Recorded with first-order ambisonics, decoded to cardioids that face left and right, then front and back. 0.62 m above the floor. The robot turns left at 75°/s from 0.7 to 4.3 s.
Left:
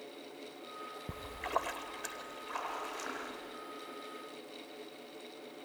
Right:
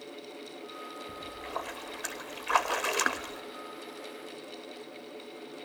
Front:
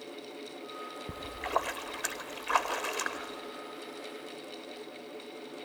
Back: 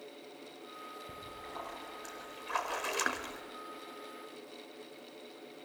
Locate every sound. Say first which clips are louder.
1.1 s a splash: left 4 dB, front 12 dB; 50° left, 1.0 m; by 3.4 s 125° right, 1.0 m